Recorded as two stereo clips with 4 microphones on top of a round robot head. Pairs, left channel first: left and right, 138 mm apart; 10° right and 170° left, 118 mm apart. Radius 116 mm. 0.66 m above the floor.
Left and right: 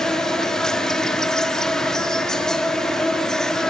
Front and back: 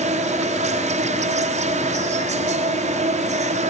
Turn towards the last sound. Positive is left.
turn(degrees=175)